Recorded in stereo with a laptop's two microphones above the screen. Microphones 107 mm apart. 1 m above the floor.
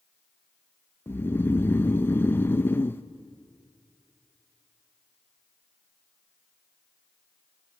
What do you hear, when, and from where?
1.1 s snoring: 20° left (ahead or behind), 0.5 m